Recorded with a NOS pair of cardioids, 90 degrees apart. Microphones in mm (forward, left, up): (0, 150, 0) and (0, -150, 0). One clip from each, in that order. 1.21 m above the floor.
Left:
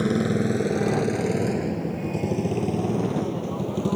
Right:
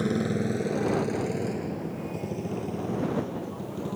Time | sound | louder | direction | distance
0.0 | a motorcycle | left 4 dB | 30° left | ?